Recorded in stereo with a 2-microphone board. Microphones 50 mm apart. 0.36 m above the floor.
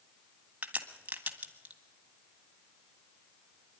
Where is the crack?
30° right (ahead or behind), 1.5 m.